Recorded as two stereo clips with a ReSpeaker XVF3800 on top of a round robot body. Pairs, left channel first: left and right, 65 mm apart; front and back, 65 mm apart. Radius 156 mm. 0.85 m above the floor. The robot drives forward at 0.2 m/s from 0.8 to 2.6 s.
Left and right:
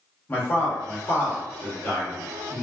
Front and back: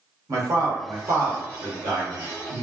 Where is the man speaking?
150° left, 1.2 m; by 2.6 s 155° left, 1.5 m.